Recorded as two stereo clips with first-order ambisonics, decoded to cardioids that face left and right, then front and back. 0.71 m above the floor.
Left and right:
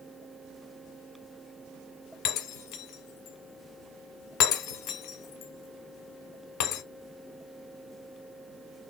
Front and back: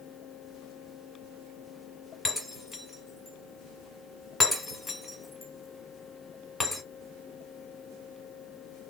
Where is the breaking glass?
80° left, 1.4 m.